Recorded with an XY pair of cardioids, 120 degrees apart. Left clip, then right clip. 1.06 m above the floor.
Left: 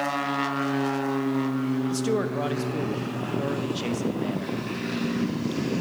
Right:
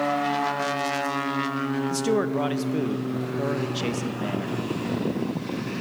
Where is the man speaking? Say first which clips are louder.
Right 4 dB; 15° right, 0.6 m.